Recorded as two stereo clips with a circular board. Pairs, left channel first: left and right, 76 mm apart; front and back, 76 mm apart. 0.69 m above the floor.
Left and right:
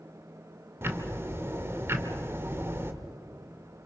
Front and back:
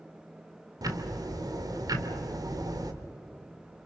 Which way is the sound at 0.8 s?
150° right.